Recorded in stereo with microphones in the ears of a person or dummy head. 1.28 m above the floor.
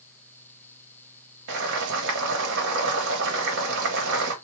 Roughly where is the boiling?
Right.